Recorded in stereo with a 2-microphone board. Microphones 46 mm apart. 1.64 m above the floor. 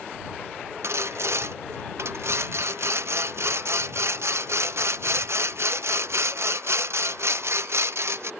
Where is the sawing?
70° right (ahead or behind).